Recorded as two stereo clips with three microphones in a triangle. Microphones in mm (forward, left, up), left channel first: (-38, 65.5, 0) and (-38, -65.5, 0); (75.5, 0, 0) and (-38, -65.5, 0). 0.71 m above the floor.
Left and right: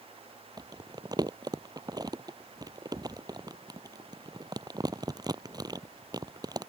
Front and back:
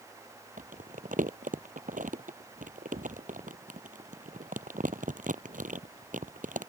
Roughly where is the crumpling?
Behind right.